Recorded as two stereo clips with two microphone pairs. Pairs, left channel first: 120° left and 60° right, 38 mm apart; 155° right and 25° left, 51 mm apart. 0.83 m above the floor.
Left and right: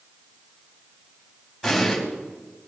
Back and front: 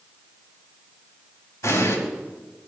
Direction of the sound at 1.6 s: 150° right.